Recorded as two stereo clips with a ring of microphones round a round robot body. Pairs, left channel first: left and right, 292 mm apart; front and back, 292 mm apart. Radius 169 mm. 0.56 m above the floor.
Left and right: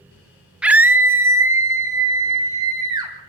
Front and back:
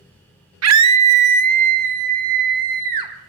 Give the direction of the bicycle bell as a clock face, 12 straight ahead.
I don't hear a bicycle bell.